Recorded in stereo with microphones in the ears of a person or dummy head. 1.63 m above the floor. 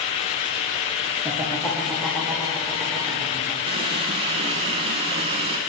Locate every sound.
1.2 s laughter: 5° left (ahead or behind), 1.6 m; by 3.6 s centre (ahead or behind), 3.5 m
3.7 s a running tap: 25° right (ahead or behind), 0.8 m